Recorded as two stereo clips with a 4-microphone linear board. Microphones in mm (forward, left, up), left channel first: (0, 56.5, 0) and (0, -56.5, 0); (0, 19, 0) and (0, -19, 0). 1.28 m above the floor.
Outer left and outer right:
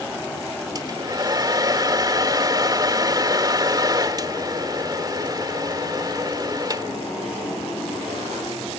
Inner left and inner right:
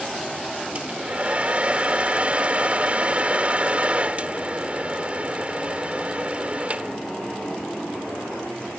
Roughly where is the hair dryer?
Right.